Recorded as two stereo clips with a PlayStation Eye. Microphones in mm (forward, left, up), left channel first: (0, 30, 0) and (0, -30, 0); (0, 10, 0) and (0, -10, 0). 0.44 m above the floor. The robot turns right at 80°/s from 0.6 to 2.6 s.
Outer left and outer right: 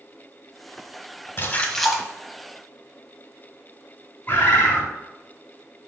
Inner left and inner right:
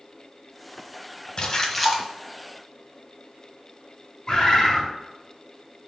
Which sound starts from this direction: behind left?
A splash, at 1.4 s.